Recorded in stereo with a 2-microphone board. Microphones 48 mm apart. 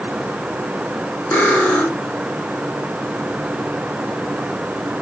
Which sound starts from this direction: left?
Cutlery clinking, at 1.3 s.